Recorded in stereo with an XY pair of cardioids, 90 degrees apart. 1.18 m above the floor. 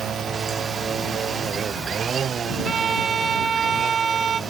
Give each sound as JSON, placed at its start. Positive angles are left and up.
{"t": 0.0, "sound": "a machine running", "azimuth_deg": -60}
{"t": 2.6, "sound": "a violin", "azimuth_deg": -55}